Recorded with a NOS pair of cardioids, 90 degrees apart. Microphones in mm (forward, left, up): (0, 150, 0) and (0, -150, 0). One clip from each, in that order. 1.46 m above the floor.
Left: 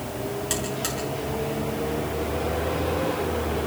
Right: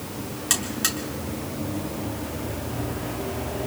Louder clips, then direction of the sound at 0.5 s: Right 7 dB; 25° right.